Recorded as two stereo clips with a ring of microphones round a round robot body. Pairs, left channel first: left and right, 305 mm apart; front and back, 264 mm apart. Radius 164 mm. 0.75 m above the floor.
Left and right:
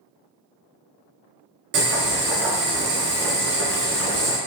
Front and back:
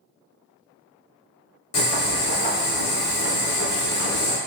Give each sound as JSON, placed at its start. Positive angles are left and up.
{"t": 1.7, "sound": "boiling", "azimuth_deg": -35, "distance_m": 1.4}